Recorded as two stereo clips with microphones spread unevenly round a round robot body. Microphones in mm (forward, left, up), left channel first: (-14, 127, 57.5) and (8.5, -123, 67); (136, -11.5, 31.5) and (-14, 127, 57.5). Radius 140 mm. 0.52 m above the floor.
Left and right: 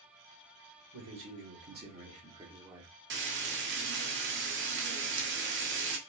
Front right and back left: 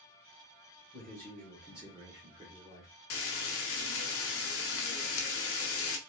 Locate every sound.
0.9 s a man speaking: 115° right, 1.6 m; by 2.9 s 165° right, 1.4 m
3.1 s frying: 40° right, 0.8 m